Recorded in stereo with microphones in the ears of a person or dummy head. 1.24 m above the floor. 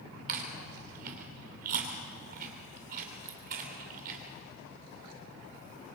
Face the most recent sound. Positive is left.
turn(degrees=-50)  # may be behind; listen again after turning